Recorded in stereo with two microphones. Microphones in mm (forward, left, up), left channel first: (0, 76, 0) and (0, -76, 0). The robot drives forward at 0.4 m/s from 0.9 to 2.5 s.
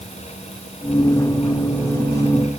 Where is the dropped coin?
I don't hear a dropped coin.